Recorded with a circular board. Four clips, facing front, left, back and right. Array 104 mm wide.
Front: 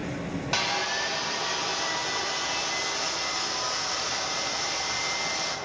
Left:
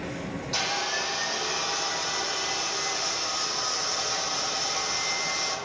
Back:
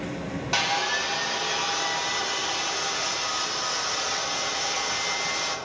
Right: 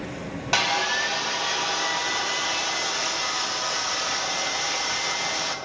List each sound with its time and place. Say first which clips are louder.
0.5 s sawing: right 7 dB, back 4 dB; 90° right, 1.4 m